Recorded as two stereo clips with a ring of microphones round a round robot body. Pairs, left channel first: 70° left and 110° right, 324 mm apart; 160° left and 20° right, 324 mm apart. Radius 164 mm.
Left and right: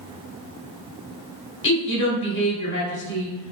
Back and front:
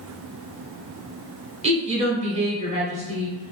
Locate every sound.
1.6 s a woman speaking: 35° left, 0.9 m